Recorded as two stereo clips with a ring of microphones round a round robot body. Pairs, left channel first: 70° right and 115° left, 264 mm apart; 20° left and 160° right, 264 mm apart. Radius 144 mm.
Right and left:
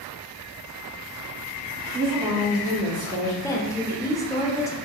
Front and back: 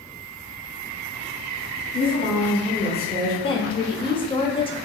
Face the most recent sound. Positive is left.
turn(degrees=-10)